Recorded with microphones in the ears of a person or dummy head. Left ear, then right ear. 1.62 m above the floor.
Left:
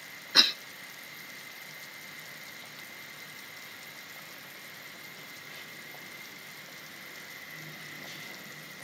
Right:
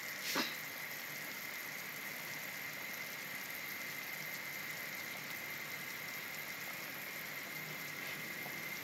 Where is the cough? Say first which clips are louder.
Left 18 dB; 65° left (ahead or behind), 0.6 m.